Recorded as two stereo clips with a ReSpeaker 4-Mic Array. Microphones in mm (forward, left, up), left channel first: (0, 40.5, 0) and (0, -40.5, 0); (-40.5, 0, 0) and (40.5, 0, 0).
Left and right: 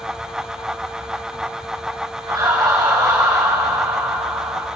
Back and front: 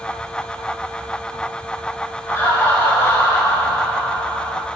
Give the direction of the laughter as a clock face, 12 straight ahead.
4 o'clock.